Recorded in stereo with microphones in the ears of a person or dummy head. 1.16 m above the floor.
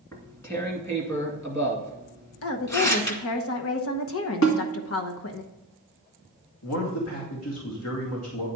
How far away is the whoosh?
No whoosh in this recording.